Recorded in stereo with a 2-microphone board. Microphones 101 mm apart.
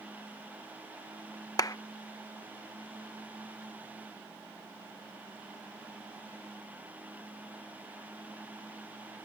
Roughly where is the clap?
Left.